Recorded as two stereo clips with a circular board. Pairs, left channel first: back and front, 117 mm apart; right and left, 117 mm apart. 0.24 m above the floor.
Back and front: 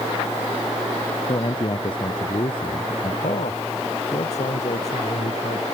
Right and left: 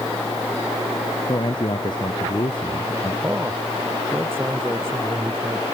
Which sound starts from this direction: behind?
A man speaking, at 3.2 s.